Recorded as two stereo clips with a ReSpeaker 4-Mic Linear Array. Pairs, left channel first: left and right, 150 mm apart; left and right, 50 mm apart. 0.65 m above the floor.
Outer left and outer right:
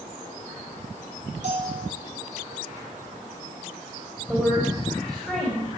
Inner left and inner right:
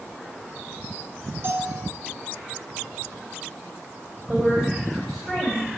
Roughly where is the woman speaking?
Centre.